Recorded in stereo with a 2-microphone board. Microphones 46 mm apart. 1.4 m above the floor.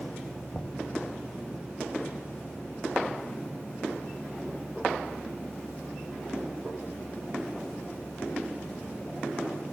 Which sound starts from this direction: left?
Knocking, at 0.5 s.